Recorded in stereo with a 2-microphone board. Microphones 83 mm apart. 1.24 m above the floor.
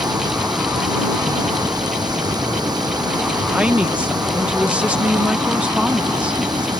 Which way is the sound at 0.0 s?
55° right (ahead or behind).